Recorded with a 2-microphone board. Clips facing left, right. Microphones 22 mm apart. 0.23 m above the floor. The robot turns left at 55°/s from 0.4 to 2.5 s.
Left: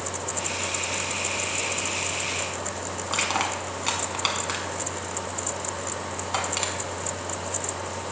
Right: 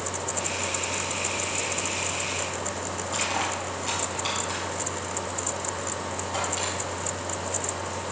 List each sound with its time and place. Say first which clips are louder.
3.1 s crushing: left 3 dB; 40° left (ahead or behind), 1.6 m